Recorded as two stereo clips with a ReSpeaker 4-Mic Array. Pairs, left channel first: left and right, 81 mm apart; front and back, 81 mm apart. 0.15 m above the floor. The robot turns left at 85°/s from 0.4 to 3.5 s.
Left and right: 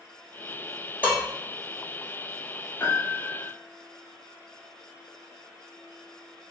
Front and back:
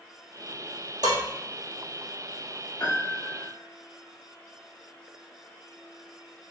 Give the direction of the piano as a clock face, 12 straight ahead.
11 o'clock.